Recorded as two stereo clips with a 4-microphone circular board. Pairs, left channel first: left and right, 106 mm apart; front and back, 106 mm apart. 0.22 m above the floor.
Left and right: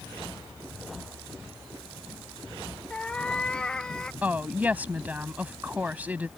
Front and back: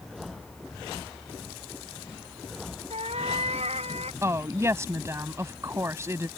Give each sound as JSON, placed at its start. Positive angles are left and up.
{"t": 2.9, "sound": "a cat meowing", "azimuth_deg": 170}
{"t": 4.2, "sound": "a woman speaking", "azimuth_deg": -150}